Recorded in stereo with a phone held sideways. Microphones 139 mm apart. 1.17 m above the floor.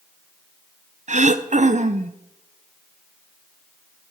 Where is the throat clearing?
60° right (ahead or behind), 0.5 m.